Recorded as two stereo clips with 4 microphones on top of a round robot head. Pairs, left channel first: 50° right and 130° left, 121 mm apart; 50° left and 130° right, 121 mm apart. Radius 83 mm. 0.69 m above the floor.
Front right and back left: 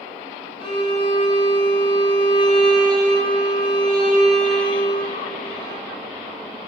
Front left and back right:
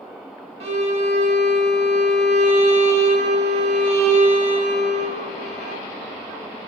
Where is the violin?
100° right, 0.7 m.